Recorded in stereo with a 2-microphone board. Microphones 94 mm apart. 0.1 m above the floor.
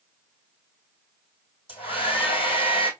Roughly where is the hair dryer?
Left.